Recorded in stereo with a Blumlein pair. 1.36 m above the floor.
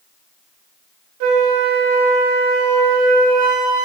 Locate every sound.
1.2 s a flute: 45° right, 1.3 m